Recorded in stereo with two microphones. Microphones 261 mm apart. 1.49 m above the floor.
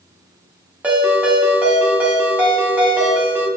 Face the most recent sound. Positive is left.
turn(degrees=-5)  # may be behind; listen again after turning